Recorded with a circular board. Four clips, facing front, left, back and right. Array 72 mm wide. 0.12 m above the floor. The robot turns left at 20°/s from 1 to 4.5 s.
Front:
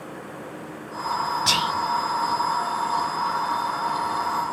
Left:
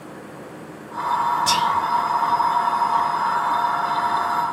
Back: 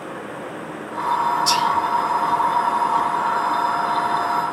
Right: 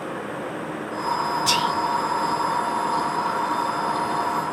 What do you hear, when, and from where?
1.5 s whispering: 10° right, 1.5 m; by 1.7 s 15° right, 1.5 m